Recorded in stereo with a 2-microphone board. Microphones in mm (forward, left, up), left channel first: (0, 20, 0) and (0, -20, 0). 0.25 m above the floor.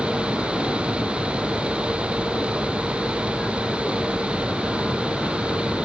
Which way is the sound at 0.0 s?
40° left (ahead or behind).